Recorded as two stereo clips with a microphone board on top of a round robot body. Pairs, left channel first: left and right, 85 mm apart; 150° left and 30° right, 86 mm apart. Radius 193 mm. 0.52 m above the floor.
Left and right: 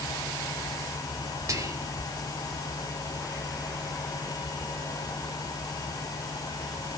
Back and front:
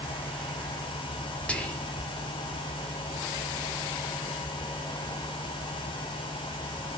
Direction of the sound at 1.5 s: 135° right.